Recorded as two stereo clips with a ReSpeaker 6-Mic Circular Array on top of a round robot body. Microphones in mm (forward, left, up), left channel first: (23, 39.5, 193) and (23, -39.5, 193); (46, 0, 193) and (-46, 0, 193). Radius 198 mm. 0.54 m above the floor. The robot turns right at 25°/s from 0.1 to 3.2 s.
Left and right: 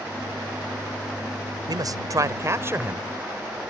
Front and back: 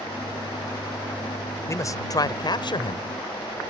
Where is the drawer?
I don't hear a drawer.